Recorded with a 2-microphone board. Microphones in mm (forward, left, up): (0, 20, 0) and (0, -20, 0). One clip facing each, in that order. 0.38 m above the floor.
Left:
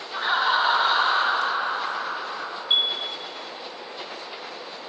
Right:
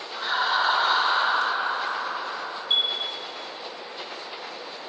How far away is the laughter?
About 0.9 m.